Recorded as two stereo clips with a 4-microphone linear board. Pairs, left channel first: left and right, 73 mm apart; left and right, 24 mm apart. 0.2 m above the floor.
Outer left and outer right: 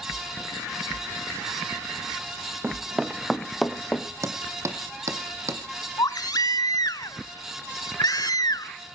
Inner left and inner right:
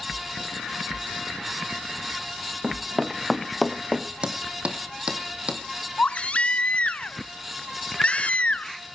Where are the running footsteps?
25° right (ahead or behind), 1.0 m; by 4.1 s 10° left (ahead or behind), 2.5 m.